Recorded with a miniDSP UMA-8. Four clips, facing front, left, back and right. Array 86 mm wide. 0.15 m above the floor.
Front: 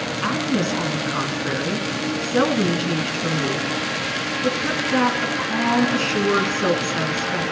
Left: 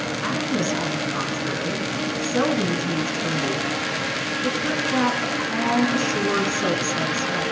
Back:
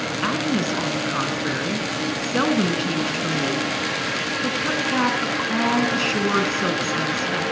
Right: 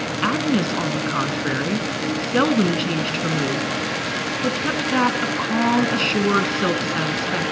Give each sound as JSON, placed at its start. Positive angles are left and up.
{"t": 0.2, "sound": "a woman speaking", "azimuth_deg": -95, "distance_m": 1.3}